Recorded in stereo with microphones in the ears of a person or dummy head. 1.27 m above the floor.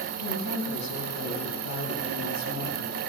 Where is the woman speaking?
85° left, 9.5 m.